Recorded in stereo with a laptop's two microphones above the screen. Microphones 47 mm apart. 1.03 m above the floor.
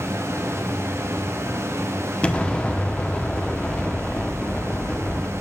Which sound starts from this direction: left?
An explosion, at 2.2 s.